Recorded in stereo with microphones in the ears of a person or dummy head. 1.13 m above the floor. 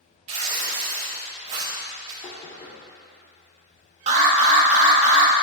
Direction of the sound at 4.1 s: 40° right (ahead or behind).